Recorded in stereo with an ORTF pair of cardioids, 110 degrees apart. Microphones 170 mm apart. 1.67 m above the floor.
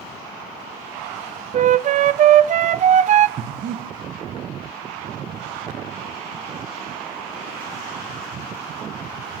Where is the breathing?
55° right, 1.7 m.